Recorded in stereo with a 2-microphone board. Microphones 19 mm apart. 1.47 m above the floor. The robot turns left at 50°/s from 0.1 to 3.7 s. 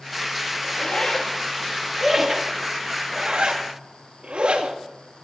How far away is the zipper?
About 1.9 m.